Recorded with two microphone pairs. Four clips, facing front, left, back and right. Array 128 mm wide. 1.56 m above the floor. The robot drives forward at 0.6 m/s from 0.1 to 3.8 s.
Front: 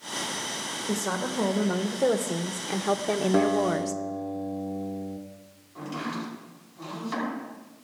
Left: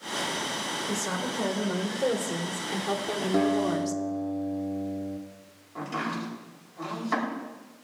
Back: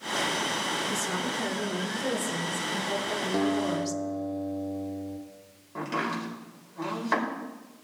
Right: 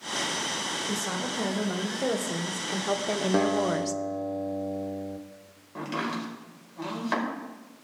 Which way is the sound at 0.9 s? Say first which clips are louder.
Left 1 dB, front 2 dB; 10° right.